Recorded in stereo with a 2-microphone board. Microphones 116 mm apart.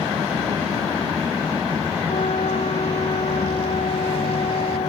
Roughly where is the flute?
Left.